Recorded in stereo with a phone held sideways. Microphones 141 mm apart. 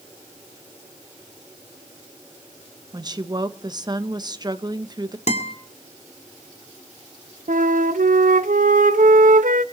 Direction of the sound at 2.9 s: 30° right (ahead or behind).